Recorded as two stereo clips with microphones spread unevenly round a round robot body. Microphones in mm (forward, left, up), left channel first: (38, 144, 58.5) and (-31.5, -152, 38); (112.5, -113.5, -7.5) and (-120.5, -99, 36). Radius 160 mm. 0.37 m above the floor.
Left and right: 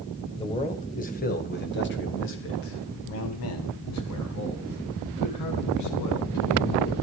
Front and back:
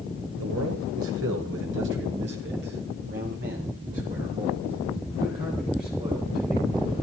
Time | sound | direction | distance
0.4 | a man speaking | 150° left | 2 m